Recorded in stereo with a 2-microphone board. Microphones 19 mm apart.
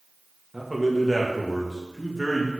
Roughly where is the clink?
No clink in this recording.